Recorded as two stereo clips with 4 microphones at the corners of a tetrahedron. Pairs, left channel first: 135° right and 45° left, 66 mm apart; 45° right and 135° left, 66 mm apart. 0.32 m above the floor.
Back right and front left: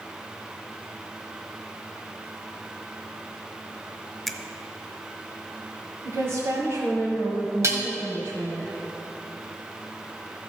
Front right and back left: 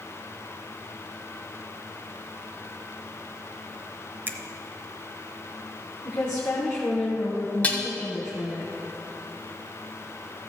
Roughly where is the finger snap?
Behind left.